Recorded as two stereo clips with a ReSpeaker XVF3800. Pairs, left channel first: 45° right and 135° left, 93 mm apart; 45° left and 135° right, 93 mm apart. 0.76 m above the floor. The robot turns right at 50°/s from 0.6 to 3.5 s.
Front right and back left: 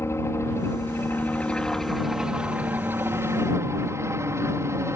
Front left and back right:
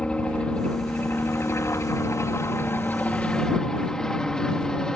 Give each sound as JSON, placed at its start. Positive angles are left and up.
{"t": 0.0, "sound": "a helicopter", "azimuth_deg": -25}